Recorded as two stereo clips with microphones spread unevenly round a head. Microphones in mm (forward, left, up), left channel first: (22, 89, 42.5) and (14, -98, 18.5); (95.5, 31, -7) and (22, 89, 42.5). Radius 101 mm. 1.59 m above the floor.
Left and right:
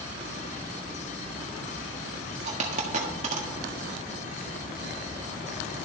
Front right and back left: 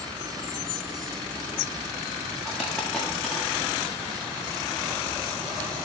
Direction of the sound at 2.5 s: 150° right.